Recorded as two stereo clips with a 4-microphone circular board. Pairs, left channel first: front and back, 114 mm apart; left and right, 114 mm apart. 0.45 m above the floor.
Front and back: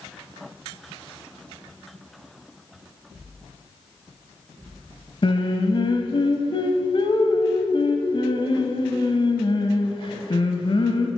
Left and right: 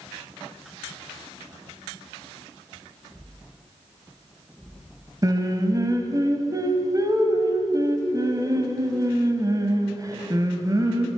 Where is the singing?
35° right, 1.0 m.